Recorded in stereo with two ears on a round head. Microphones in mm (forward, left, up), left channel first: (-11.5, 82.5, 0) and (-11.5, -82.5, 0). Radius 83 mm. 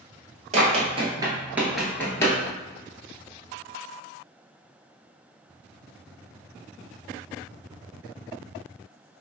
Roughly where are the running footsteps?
Right.